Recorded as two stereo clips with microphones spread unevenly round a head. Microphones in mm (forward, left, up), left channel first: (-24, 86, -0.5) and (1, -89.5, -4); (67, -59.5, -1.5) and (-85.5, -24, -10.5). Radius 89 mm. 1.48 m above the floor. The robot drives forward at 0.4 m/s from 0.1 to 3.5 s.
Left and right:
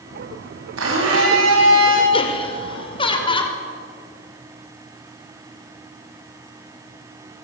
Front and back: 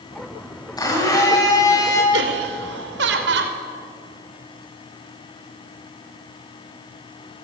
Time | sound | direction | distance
0.8 | a blender | 80° right | 10 m
2.1 | laughter | 155° left | 4.5 m